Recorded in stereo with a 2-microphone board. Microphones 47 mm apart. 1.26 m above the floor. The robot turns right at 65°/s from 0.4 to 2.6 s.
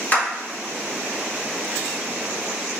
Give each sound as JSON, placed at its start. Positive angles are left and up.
{"t": 0.1, "sound": "a clap", "side_deg": 35, "distance_m": 1.6}